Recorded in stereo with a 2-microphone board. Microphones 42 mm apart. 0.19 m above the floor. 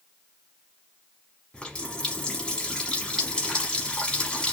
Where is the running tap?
25° left (ahead or behind), 1.1 m.